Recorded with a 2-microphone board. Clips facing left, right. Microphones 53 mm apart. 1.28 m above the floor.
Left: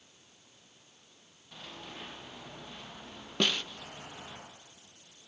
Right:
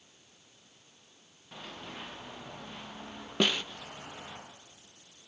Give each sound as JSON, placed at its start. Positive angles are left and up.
{"t": 1.5, "sound": "running footsteps", "side_deg": -20, "distance_m": 8.0}
{"t": 3.4, "sound": "a snare drum", "side_deg": -10, "distance_m": 0.5}